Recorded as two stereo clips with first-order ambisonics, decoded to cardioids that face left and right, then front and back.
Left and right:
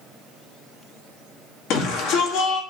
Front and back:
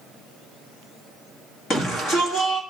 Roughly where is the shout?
Ahead left.